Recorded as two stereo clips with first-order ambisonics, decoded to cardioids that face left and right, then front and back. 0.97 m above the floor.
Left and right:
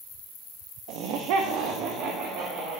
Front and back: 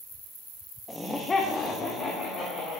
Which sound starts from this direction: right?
Laughter, at 0.9 s.